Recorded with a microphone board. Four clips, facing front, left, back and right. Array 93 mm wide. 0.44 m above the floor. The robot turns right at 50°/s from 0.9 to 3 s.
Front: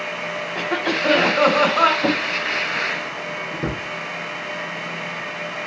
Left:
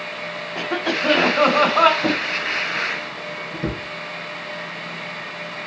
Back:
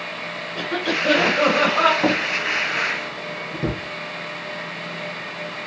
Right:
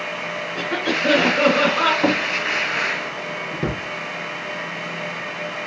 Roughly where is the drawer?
Behind right.